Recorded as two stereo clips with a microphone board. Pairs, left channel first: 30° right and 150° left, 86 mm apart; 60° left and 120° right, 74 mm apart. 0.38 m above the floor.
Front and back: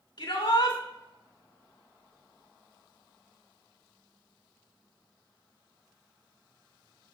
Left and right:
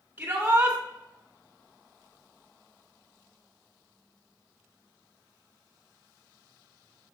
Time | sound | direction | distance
0.2 | a shout | 55° right | 3 m